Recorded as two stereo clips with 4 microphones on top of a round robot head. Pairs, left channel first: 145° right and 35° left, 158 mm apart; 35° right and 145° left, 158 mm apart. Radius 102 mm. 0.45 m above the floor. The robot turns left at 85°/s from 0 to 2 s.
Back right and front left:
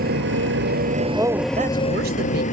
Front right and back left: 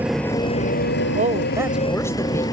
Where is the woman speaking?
115° left; by 2.4 s 40° left.